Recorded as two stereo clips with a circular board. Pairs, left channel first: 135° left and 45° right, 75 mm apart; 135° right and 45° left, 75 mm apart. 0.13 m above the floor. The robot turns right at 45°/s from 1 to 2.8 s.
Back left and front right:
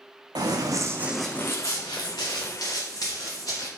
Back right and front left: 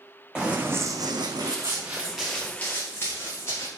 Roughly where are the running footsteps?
Ahead right.